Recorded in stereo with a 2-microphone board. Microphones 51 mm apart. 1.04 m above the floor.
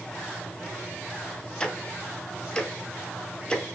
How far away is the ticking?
About 1.6 m.